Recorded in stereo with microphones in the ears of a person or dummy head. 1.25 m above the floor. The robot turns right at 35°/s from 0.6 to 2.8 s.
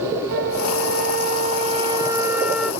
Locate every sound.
0.3 s a flute: 75° right, 0.5 m; by 2.7 s straight ahead, 0.5 m